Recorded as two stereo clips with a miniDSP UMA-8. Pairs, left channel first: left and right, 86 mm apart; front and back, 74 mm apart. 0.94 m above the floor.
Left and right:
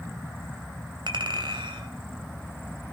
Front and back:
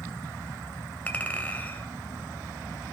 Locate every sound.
1.1 s a clink: 70° right, 2.5 m